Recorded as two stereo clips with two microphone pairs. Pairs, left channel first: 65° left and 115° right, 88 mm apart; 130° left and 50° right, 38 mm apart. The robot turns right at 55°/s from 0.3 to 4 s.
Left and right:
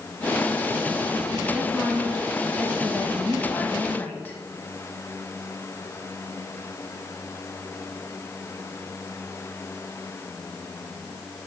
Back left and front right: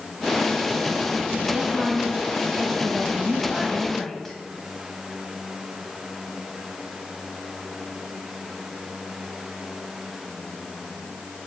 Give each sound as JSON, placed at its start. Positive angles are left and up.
{"t": 1.5, "sound": "a woman speaking", "azimuth_deg": -65, "distance_m": 1.1}